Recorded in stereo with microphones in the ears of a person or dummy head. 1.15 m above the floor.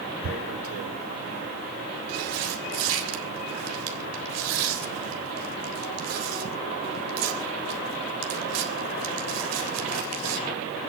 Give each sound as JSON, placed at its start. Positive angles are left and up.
{"t": 0.2, "sound": "tearing paper", "side_deg": -85, "distance_m": 3.5}